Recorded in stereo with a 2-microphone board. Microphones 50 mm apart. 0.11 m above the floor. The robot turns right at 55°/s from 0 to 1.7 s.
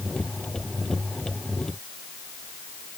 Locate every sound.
Only background noise.